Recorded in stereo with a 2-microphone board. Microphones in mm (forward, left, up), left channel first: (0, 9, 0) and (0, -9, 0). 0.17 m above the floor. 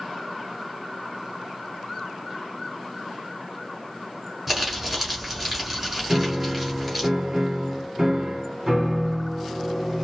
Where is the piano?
20° right (ahead or behind), 1.1 m.